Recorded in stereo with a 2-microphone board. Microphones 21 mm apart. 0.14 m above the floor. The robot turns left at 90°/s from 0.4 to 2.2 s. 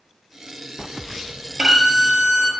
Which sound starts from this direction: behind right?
A violin, at 1.6 s.